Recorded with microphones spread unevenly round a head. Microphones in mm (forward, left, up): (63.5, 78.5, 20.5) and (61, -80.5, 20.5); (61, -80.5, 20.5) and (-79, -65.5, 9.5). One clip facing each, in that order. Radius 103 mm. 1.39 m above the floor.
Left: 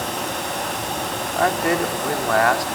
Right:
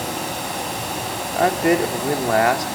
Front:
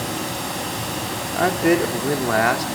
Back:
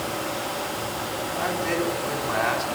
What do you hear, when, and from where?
0.0 s running water: 10° right, 5.5 m
1.3 s a man speaking: 25° right, 3.5 m